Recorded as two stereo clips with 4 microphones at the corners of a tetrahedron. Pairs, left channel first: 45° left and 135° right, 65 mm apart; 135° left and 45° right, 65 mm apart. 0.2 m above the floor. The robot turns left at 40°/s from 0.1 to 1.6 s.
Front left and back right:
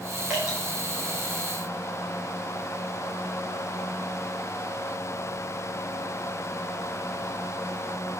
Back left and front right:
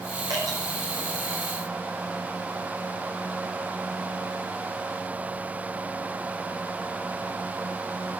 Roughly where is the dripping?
Ahead right.